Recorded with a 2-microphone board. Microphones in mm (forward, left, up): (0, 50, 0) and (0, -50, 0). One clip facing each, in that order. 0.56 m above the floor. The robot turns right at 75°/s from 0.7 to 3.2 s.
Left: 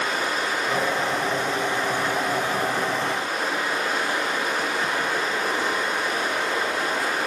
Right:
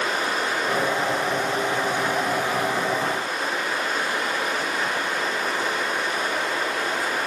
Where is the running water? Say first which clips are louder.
Right 1 dB; 110° right, 5.5 m; by 7.3 s 75° left, 5.5 m.